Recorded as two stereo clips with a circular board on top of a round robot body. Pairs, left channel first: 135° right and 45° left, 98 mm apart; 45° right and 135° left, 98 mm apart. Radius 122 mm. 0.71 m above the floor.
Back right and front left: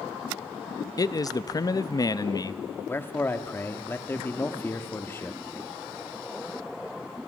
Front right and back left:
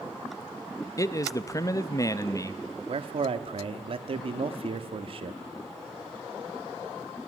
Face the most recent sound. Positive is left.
turn(degrees=155)